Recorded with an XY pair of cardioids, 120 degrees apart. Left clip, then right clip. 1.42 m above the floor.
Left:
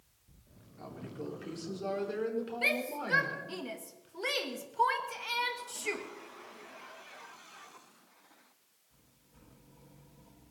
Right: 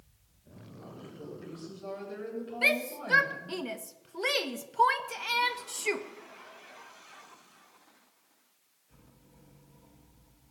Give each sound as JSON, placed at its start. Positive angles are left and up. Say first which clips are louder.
{"t": 0.8, "sound": "a woman speaking", "louder": "left 3 dB", "azimuth_deg": 65, "distance_m": 4.5}
{"t": 2.6, "sound": "a shout", "louder": "right 5 dB", "azimuth_deg": -30, "distance_m": 1.4}